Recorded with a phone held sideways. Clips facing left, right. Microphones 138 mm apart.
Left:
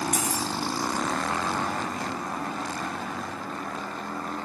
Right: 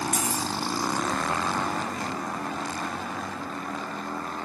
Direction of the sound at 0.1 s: 75° left (ahead or behind).